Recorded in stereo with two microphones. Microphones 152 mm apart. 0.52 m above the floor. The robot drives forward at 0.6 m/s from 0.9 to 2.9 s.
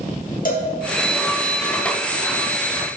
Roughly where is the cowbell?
Left.